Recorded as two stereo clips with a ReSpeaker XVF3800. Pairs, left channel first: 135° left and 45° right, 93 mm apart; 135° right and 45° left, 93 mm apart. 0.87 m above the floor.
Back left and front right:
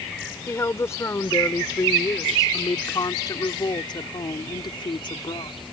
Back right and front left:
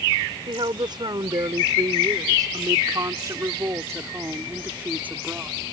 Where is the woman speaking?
75° left; by 5.5 s 120° left.